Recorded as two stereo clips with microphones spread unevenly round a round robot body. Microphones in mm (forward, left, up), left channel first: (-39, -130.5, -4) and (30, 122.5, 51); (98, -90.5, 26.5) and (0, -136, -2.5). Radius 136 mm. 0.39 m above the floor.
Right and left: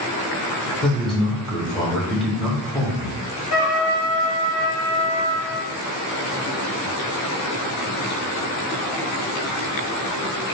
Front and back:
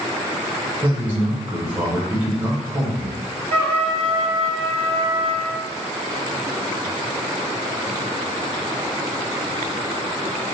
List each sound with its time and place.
0.8 s a man speaking: 175° right, 1.0 m
3.5 s a trumpet: 140° right, 1.8 m